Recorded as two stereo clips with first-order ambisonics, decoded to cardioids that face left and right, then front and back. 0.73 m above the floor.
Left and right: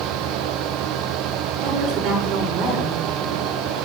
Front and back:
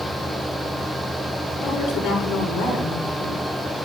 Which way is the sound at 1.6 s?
55° right.